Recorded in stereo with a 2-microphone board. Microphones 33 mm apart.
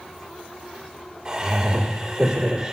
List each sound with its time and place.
1.2 s laughter: 25° right (ahead or behind), 1.9 m